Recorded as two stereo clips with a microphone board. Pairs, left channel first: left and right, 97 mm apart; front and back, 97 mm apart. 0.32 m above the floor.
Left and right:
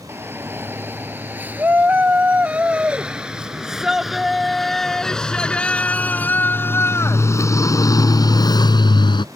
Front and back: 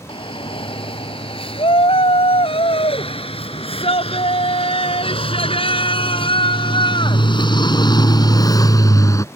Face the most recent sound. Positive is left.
turn(degrees=55)